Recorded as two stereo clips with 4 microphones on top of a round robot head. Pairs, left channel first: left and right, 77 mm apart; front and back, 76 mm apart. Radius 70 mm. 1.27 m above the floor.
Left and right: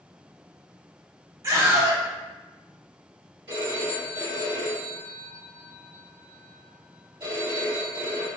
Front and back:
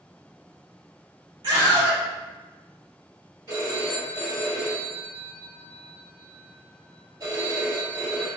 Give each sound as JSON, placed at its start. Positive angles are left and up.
{"t": 1.4, "sound": "a scream", "azimuth_deg": -140, "distance_m": 1.7}
{"t": 3.5, "sound": "a phone ringing", "azimuth_deg": -130, "distance_m": 1.6}